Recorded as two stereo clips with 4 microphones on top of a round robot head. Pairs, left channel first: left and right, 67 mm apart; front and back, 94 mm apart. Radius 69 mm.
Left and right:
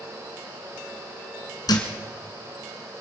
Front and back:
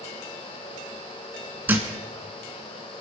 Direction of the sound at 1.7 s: 110° left.